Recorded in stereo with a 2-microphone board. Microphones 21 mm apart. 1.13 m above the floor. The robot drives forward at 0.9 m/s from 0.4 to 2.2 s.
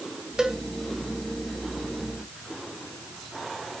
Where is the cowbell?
35° right (ahead or behind), 1.4 m.